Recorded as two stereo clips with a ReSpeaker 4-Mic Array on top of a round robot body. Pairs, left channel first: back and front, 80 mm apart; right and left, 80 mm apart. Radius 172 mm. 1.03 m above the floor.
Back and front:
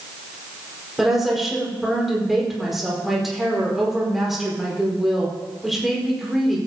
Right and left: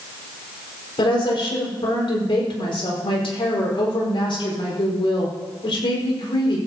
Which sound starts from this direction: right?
A woman speaking, at 1.0 s.